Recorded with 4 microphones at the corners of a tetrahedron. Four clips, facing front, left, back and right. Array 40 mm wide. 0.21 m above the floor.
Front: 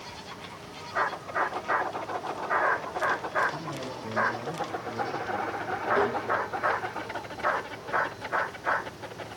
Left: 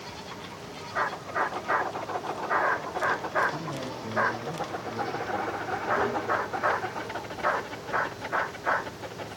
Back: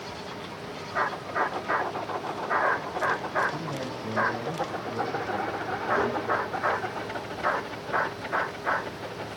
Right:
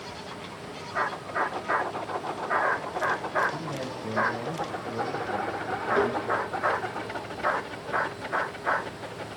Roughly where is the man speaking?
Behind left.